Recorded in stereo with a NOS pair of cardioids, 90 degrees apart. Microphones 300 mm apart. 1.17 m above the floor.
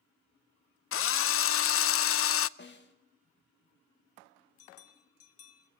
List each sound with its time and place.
0.9 s a drill: 50° left, 0.5 m
2.6 s a snare drum: 35° left, 2 m
4.6 s a bell: 55° left, 1.2 m